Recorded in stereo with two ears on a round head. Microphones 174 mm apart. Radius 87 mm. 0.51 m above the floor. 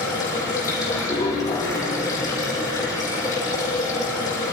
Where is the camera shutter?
No camera shutter in this recording.